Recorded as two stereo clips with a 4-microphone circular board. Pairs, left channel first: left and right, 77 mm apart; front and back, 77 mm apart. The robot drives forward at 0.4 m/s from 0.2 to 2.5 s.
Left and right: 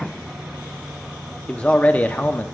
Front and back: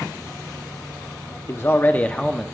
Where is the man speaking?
25° left, 0.7 m; by 2.4 s 85° left, 0.5 m.